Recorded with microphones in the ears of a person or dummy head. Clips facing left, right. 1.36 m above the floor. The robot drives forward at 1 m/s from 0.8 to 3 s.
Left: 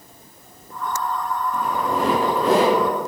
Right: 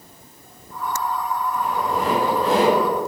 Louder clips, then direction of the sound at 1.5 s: Left 1 dB; 70° left (ahead or behind).